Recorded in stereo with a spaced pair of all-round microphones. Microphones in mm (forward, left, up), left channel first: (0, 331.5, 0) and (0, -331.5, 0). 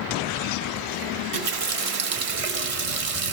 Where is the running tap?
50° right (ahead or behind), 0.8 m.